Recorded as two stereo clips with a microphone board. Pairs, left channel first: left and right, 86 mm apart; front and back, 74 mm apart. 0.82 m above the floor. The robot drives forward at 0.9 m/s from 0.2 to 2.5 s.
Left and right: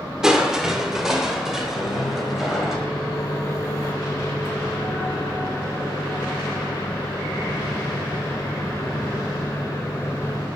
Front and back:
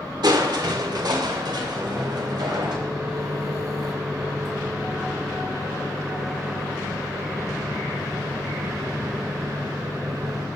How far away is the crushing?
About 2 m.